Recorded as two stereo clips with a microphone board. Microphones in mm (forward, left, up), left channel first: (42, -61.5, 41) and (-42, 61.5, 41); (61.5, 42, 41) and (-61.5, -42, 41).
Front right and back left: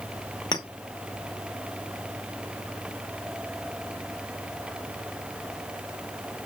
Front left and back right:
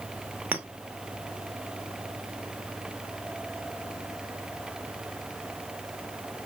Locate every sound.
0.5 s a clink: 75° right, 0.7 m